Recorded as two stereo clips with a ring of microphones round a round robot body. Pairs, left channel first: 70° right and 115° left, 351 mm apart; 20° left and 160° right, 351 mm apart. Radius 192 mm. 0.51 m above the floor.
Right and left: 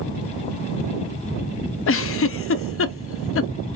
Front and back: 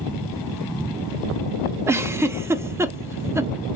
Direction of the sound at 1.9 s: 80° right.